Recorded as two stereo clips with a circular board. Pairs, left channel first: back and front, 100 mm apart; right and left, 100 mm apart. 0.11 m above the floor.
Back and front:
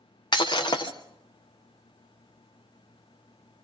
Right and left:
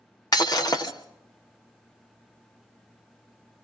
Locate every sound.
0.3 s breaking glass: 140° right, 2.5 m